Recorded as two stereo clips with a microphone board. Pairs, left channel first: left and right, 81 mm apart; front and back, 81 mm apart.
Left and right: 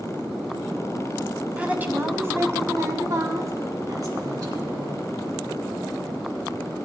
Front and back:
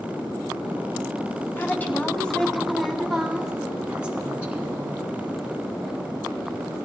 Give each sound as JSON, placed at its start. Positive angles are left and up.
{"t": 1.6, "sound": "a woman speaking", "azimuth_deg": -30, "distance_m": 1.1}